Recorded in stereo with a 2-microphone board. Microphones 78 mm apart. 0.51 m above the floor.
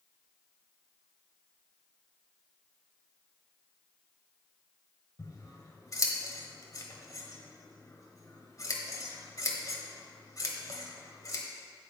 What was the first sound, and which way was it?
Scissors, 45° left (ahead or behind).